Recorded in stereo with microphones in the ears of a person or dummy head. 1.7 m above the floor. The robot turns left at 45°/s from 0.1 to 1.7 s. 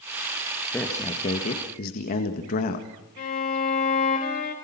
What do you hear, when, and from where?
0.7 s a man speaking: 165° left, 1.7 m; by 2.9 s 125° left, 1.7 m
3.2 s a violin: 50° left (ahead or behind), 4 m